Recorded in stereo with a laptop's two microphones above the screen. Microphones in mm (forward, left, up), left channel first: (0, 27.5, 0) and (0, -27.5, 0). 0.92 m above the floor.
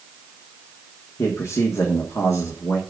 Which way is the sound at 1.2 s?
70° left (ahead or behind).